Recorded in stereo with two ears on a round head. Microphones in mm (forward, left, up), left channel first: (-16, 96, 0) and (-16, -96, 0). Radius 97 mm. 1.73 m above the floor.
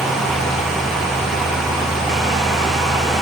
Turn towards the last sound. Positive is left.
No sound to turn to.